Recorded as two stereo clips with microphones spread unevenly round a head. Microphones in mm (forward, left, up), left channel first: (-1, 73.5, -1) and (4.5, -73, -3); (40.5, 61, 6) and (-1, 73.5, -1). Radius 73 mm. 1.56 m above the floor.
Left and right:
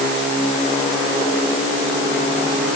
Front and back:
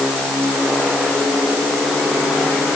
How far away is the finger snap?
No finger snap in this recording.